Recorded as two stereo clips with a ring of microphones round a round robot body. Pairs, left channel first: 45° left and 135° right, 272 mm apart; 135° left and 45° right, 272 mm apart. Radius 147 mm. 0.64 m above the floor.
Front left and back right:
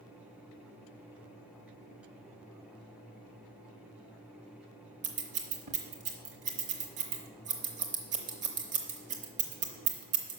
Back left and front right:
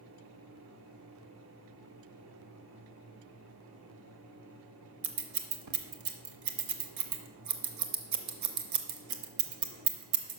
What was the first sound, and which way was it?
Scissors, 70° right.